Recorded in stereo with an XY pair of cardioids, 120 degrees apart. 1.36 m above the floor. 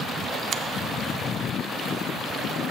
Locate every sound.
0.5 s a finger snap: 45° right, 0.6 m